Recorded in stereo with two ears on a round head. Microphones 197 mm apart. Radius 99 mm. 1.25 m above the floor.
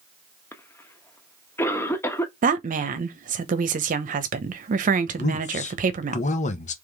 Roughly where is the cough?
Centre.